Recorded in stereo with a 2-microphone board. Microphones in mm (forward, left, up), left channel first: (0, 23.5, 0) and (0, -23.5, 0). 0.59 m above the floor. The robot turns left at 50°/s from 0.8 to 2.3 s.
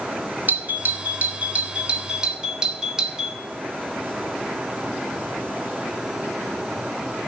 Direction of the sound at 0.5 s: 85° right.